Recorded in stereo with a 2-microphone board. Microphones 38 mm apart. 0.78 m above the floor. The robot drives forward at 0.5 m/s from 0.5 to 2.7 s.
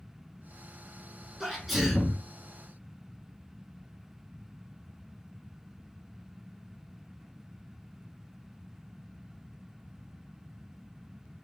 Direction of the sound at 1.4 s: Centre (ahead or behind).